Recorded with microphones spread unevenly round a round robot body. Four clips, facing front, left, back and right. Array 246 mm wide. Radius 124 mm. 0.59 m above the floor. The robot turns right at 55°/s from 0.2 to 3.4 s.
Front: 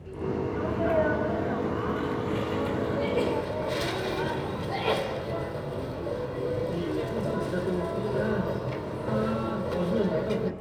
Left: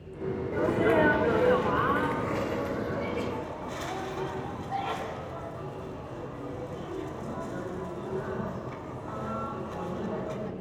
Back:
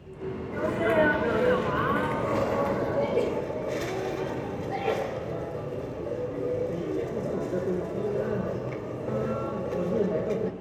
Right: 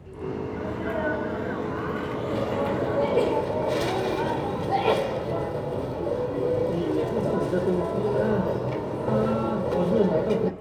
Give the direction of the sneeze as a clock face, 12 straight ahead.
8 o'clock.